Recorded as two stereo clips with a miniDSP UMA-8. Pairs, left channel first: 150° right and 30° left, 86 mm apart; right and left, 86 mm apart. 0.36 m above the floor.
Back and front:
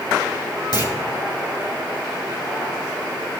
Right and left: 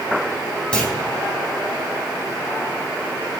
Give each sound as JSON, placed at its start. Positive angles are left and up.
{"t": 0.7, "sound": "a clunk", "azimuth_deg": -165, "distance_m": 3.0}